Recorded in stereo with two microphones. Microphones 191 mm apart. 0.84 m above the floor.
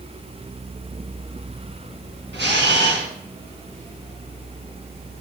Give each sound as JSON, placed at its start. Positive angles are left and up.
{"t": 2.3, "sound": "a camera shutter", "side_deg": -70, "distance_m": 3.0}